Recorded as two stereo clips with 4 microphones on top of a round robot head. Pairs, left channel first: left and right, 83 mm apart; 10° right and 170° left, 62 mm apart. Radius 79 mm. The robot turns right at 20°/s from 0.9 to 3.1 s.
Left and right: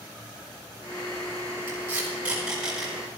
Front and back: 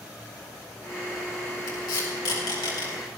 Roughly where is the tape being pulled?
Ahead right.